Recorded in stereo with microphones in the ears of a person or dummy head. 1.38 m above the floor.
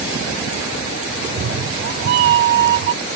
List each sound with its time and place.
1.2 s a cat meowing: 55° right (ahead or behind)